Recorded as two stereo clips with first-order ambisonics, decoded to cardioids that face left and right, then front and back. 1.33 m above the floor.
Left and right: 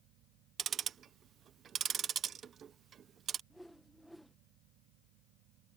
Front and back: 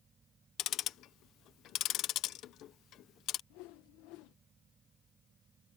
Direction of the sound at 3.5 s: Straight ahead.